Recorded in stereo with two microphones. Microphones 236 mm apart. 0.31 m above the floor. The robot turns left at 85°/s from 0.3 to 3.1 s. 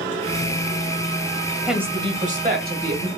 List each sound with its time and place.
1.7 s a woman speaking: straight ahead, 1.8 m; by 3.1 s 120° right, 1.8 m